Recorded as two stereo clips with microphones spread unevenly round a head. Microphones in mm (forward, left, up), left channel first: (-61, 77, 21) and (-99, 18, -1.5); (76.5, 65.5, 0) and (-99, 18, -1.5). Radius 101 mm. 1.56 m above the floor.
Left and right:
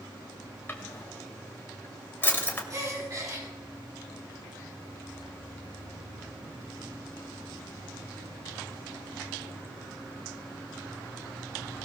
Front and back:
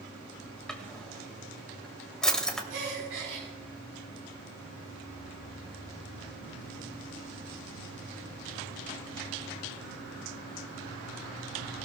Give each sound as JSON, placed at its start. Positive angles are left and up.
{"t": 0.7, "sound": "a drawer", "azimuth_deg": 100, "distance_m": 2.0}
{"t": 2.7, "sound": "a gasp", "azimuth_deg": -165, "distance_m": 5.0}